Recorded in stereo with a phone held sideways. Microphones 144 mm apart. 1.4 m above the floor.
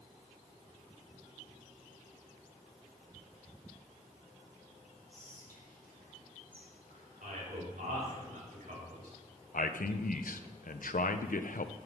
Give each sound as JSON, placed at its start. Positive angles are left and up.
{"t": 5.1, "sound": "whispering", "side_deg": 70, "distance_m": 2.0}
{"t": 7.2, "sound": "a man speaking", "side_deg": -80, "distance_m": 4.5}
{"t": 9.5, "sound": "a man speaking", "side_deg": 75, "distance_m": 0.6}